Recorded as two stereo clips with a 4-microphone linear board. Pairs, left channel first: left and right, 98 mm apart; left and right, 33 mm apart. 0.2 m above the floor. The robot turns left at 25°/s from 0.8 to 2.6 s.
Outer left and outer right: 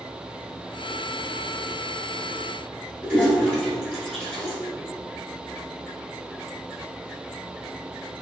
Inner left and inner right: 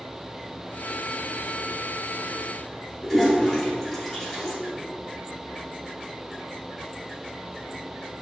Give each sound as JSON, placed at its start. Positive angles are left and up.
{"t": 3.0, "sound": "a toilet flushing", "side_deg": 5, "distance_m": 1.8}